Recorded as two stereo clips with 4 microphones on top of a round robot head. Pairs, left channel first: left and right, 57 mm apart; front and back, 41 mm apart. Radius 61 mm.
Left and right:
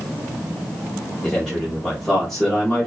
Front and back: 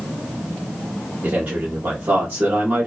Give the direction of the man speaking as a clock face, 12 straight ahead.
6 o'clock.